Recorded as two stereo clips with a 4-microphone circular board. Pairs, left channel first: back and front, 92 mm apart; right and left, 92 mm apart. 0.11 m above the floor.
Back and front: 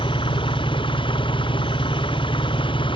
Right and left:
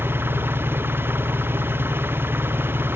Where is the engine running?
155° left.